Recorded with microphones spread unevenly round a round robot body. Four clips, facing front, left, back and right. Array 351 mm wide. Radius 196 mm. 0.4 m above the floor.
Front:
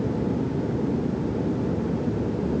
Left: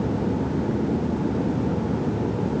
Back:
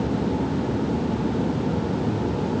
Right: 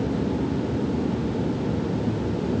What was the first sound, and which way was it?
Only background noise.